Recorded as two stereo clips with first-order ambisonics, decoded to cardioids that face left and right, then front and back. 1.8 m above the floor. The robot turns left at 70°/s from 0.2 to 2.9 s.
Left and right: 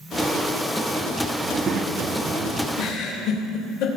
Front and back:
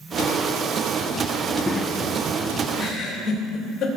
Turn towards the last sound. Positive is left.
turn(degrees=60)